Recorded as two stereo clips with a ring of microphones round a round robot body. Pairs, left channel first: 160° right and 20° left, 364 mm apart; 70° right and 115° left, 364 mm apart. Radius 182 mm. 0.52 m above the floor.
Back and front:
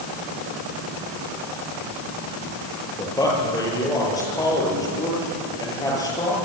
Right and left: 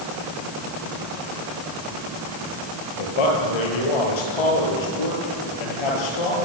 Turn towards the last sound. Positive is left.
turn(degrees=-75)